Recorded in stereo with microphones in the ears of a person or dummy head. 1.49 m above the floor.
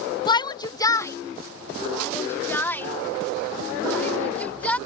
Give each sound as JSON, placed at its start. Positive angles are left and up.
{"t": 0.3, "sound": "a shout", "side_deg": 30}